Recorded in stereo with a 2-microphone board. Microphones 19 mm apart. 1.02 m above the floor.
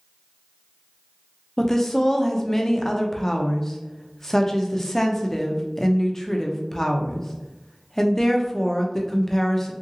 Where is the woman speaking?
25° left (ahead or behind), 0.5 m.